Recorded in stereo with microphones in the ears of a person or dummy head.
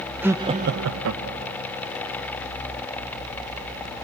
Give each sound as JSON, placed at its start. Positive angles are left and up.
{"t": 0.2, "sound": "laughter", "side_deg": -10, "distance_m": 1.0}